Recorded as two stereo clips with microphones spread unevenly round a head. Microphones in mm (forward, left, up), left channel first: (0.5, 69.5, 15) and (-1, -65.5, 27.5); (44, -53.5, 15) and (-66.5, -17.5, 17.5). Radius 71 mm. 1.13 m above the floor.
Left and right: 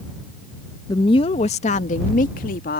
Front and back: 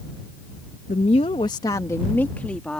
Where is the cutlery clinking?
No cutlery clinking in this recording.